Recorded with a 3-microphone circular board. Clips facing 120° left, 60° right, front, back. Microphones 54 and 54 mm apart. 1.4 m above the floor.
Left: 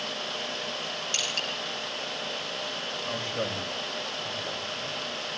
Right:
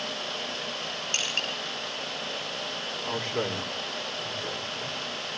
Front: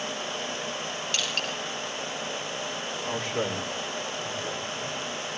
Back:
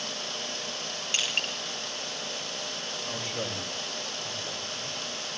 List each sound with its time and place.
1.1 s crushing: 110° right, 8 m
3.0 s a man speaking: 55° right, 4.5 m